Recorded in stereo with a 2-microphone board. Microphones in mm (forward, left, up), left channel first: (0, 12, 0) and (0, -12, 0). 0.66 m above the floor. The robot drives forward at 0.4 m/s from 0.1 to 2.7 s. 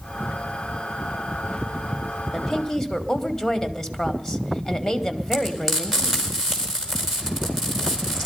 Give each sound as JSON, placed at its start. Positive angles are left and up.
{"t": 2.3, "sound": "a woman speaking", "side_deg": 10, "distance_m": 2.0}
{"t": 5.3, "sound": "frying", "side_deg": -10, "distance_m": 4.5}